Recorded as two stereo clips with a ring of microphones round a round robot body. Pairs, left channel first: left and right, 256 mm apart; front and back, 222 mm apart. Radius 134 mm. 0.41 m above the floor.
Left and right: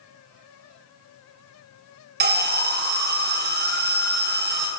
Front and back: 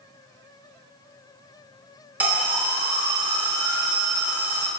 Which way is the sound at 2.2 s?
100° right.